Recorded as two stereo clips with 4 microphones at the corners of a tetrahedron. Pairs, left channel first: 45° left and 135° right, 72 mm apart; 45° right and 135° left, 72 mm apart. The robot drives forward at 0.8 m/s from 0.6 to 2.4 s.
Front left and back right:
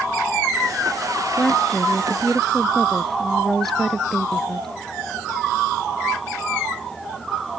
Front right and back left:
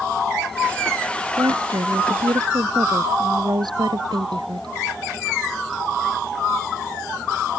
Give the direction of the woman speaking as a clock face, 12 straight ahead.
8 o'clock.